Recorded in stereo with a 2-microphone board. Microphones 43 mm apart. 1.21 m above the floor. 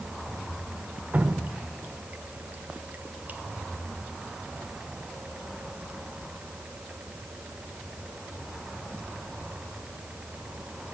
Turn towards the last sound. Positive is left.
turn(degrees=-40)  # may be behind; listen again after turning